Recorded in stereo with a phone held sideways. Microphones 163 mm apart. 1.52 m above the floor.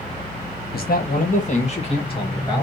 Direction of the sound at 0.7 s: 70° left (ahead or behind).